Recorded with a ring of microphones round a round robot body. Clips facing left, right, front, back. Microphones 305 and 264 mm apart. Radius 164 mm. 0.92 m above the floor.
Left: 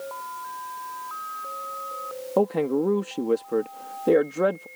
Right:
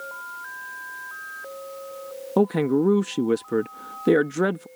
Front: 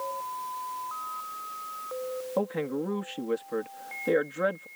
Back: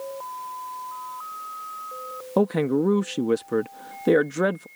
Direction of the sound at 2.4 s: 145° right.